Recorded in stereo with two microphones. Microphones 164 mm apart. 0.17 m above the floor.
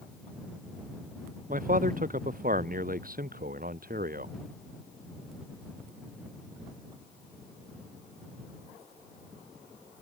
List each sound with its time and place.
1.5 s a man speaking: 55° right (ahead or behind); by 4.3 s 65° right (ahead or behind)